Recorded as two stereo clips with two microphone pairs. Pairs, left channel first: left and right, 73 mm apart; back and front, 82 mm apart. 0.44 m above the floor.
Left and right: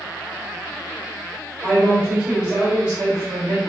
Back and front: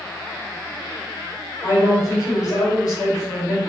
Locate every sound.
1.6 s a woman speaking: 165° right, 1.9 m